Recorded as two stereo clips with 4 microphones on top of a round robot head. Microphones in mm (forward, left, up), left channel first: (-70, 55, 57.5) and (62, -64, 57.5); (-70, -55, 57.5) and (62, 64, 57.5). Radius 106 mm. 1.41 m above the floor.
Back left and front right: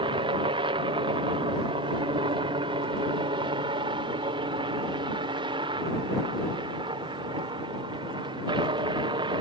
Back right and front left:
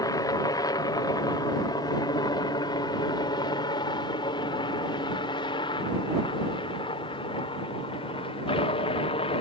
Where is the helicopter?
80° right; by 9.4 s 95° right.